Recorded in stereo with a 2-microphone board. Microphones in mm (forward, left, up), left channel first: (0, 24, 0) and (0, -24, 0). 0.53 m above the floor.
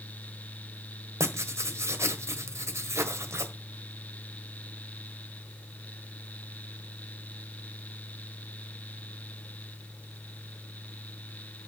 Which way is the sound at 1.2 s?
75° right (ahead or behind).